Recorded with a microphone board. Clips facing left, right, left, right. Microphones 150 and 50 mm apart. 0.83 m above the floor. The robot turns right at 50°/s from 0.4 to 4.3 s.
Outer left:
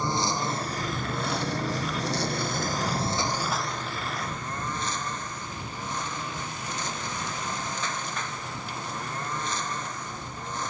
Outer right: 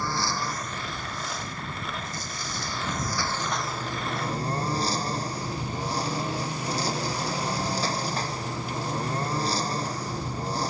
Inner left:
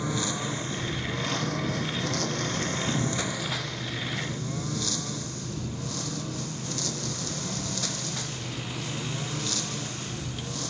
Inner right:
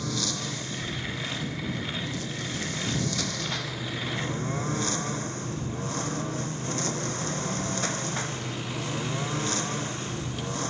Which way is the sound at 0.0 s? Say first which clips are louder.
Outer left 2 dB, inner left 2 dB; 20° left.